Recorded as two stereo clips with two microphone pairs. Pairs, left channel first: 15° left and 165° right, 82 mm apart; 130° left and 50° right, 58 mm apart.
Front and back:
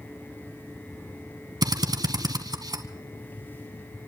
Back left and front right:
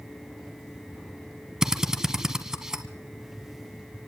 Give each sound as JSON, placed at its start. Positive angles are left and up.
{"t": 1.6, "sound": "a drill", "azimuth_deg": -130, "distance_m": 1.4}